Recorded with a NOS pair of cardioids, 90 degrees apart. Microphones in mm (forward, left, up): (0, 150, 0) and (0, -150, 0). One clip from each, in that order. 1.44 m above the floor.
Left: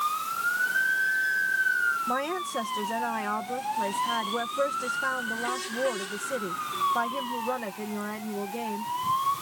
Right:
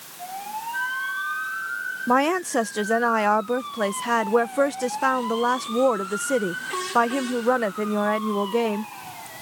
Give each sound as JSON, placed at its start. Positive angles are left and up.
{"t": 0.7, "sound": "a flute", "azimuth_deg": 15}
{"t": 2.1, "sound": "a woman speaking", "azimuth_deg": -65}